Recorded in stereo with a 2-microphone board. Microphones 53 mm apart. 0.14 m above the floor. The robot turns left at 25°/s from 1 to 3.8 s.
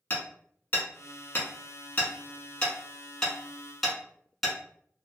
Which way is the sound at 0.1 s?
35° left (ahead or behind).